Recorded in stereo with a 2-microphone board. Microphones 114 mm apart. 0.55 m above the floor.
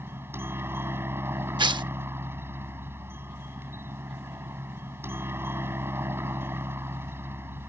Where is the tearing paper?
45° right (ahead or behind).